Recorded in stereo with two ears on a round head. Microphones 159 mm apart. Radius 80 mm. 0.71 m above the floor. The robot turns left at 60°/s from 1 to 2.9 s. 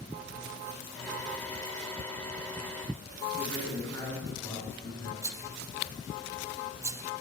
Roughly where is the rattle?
Centre.